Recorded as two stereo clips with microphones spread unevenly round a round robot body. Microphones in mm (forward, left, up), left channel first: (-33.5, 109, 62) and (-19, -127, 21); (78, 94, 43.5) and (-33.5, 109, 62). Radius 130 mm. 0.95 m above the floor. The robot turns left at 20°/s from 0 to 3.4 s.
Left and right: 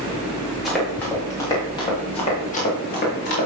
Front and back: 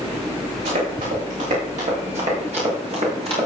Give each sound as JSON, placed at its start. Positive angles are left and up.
{"t": 0.7, "sound": "running footsteps", "azimuth_deg": -175, "distance_m": 8.5}